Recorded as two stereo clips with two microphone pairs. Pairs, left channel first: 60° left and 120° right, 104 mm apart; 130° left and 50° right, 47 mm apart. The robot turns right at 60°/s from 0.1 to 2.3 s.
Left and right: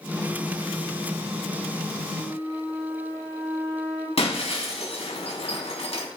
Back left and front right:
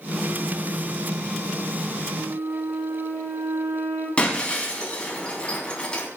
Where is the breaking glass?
65° left, 4 m.